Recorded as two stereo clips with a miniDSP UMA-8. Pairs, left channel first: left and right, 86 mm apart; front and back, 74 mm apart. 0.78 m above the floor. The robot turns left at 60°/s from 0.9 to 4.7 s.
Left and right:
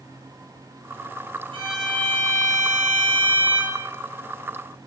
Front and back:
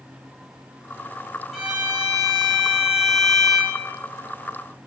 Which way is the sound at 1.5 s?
90° right.